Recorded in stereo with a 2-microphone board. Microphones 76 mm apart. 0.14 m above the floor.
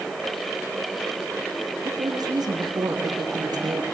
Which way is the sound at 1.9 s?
65° right (ahead or behind).